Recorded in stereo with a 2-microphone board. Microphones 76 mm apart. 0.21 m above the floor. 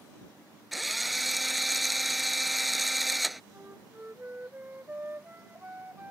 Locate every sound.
0.7 s a drill: centre (ahead or behind)
3.5 s a flute: 25° right (ahead or behind)